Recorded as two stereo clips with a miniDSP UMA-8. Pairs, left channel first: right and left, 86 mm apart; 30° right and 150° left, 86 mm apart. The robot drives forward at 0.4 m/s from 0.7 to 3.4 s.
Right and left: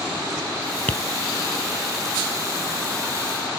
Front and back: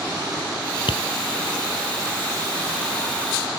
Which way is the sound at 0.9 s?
20° right.